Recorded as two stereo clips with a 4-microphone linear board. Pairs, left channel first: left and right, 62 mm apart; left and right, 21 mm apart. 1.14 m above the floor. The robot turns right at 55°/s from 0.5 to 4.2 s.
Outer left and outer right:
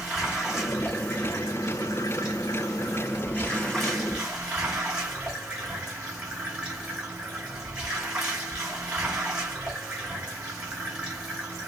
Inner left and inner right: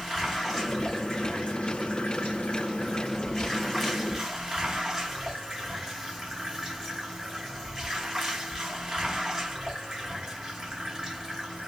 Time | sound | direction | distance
0.0 | running water | straight ahead | 3 m